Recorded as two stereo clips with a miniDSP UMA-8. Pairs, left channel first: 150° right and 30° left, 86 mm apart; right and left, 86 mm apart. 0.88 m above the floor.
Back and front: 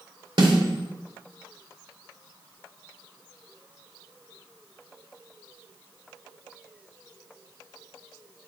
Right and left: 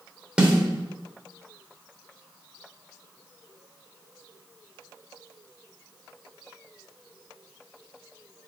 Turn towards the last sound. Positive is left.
turn(degrees=15)